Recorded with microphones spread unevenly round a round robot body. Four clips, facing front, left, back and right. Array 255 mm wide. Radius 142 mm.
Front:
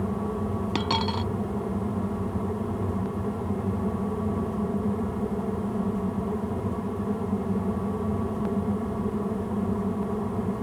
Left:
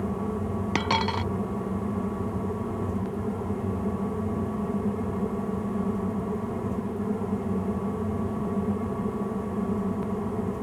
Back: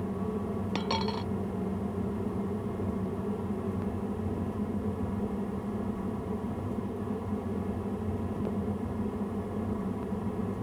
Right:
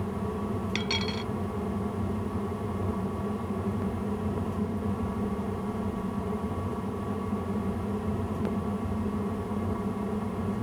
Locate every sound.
0.8 s a dropped coin: 45° left